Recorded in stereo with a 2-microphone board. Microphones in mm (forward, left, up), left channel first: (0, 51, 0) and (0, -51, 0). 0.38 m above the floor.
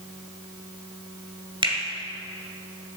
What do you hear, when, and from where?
1.6 s a finger snap: 55° right (ahead or behind), 2 m